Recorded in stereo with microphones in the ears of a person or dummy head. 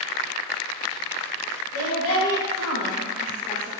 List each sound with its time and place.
1.7 s a woman speaking: 75° left (ahead or behind), 1.0 m; by 3.7 s 5° left (ahead or behind), 0.6 m